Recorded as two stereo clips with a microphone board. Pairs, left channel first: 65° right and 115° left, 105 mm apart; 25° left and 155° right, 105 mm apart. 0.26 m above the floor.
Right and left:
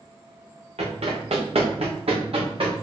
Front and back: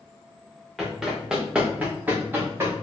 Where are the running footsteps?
110° left, 2 m; by 2.7 s 135° left, 2.5 m.